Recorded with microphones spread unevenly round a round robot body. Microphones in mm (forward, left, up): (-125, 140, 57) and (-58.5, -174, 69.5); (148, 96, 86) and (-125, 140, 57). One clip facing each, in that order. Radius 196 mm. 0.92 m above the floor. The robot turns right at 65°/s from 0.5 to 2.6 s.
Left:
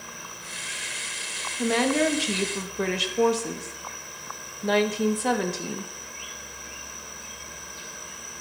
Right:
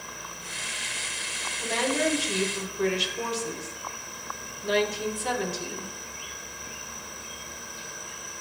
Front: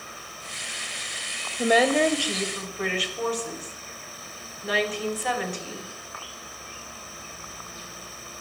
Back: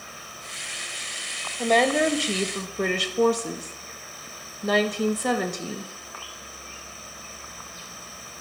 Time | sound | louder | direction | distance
1.6 | a woman speaking | left 5 dB, front 1 dB | 65° left | 1.2 m